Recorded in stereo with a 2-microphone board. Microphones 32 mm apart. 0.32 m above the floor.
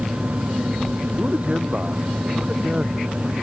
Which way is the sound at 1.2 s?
40° right (ahead or behind).